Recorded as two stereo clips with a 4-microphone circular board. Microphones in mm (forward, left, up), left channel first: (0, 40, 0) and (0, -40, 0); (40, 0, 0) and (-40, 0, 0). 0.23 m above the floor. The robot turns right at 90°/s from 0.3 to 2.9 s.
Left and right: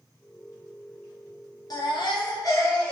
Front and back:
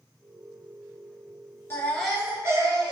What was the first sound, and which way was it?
A baby crying, 60° left.